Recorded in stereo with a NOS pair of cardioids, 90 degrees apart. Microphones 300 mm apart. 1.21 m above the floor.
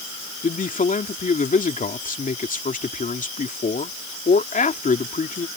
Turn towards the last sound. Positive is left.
turn(degrees=25)